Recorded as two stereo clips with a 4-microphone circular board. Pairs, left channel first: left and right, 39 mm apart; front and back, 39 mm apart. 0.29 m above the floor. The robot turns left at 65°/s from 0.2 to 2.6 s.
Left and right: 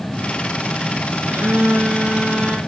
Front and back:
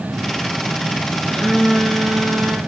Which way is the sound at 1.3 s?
70° right.